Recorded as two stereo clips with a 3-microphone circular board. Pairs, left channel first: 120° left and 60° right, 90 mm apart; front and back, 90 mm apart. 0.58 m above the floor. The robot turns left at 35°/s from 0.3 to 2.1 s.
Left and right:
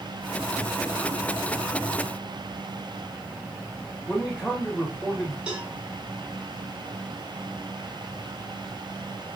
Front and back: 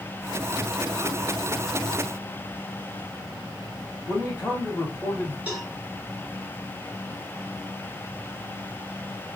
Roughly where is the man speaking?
Ahead left.